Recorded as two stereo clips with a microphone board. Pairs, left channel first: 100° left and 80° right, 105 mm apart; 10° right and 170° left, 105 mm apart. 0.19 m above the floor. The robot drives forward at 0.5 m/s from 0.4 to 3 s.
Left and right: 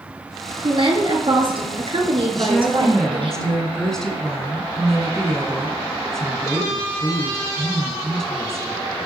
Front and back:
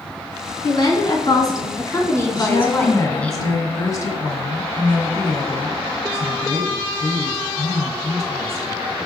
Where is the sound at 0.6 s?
50° right, 2 m; by 3.3 s 85° right, 1.7 m.